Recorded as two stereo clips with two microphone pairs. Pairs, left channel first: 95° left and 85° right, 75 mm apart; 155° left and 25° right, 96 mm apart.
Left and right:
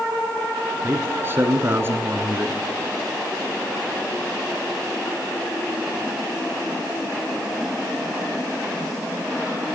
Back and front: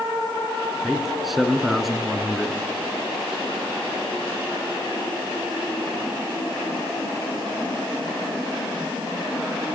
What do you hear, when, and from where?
0.8 s a man speaking: 115° right, 1.3 m